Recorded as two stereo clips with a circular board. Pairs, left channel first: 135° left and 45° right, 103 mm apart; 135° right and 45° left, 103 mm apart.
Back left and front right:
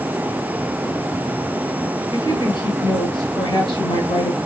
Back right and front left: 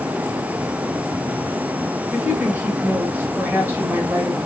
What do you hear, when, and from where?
2.1 s a woman speaking: 110° left, 1.9 m